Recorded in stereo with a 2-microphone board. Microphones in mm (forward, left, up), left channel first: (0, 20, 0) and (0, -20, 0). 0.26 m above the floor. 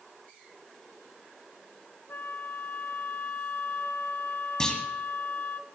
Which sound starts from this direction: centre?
A clunk, at 4.6 s.